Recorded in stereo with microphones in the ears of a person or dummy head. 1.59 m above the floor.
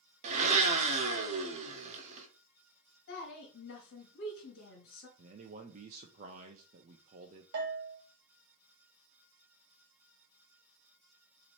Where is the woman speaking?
70° left (ahead or behind), 1.8 m.